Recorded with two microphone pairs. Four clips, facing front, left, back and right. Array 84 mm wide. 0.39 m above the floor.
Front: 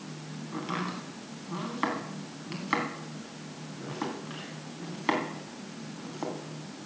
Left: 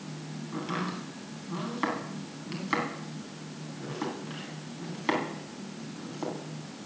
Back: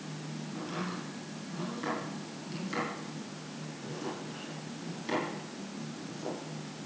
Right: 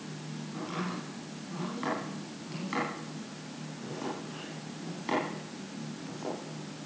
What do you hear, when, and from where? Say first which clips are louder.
0.5 s chopping: left 3 dB, front 5 dB; 25° left, 3.5 m